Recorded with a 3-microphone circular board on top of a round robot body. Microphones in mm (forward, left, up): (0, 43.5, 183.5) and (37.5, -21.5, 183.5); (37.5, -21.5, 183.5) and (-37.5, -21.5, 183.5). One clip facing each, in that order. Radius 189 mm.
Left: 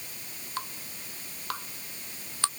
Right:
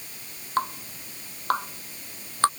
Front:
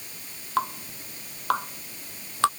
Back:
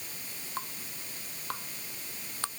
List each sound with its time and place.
0.6 s dripping: 10° right